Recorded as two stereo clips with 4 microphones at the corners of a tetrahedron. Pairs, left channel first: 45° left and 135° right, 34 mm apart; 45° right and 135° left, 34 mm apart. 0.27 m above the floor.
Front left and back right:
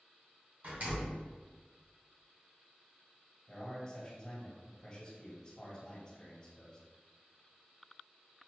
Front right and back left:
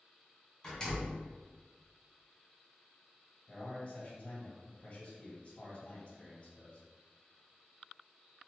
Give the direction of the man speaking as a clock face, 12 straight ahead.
12 o'clock.